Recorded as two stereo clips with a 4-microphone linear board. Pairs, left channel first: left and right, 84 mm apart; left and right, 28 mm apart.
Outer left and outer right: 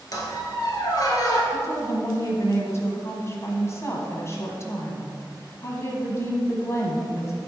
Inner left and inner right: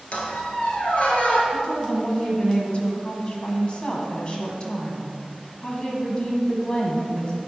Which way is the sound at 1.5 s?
35° left (ahead or behind).